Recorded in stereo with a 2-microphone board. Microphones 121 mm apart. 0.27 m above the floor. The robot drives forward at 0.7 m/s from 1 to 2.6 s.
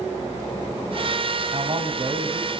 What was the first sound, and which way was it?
A man speaking, 50° right (ahead or behind).